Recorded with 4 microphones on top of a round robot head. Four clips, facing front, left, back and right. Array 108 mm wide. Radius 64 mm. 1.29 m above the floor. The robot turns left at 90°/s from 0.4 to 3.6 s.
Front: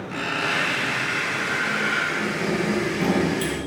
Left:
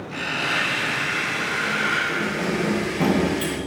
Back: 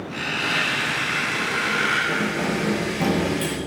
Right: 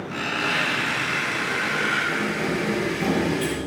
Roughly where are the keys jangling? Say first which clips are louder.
Even, back 1 dB; behind.